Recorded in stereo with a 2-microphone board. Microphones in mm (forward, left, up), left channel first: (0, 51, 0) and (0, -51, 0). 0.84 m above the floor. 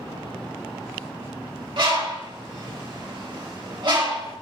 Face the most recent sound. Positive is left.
turn(degrees=-50)  # may be behind; listen again after turning